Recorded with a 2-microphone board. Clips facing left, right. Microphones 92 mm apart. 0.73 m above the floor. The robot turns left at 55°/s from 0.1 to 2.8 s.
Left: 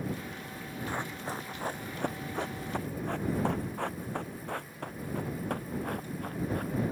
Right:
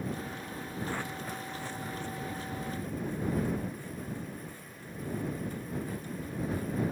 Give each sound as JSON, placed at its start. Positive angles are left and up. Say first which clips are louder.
{"t": 0.9, "sound": "running footsteps", "louder": "left 3 dB", "side_deg": 15}